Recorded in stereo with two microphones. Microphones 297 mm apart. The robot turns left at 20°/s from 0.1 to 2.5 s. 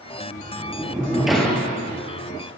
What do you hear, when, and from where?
0.4 s a sliding door: 15° right (ahead or behind), 2.5 m; by 1.7 s 5° left (ahead or behind), 2.5 m